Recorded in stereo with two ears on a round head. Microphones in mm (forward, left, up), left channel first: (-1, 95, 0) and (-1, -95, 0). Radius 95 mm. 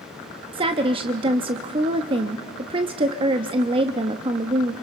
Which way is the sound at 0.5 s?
25° right (ahead or behind).